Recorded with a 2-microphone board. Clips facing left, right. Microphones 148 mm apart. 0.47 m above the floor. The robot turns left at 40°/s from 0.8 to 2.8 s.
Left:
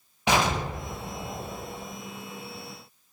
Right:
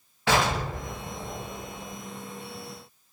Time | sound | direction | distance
0.3 | an explosion | 165° left | 0.8 m